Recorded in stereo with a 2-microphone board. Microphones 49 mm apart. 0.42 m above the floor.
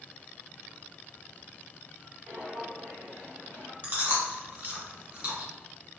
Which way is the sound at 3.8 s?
35° right (ahead or behind).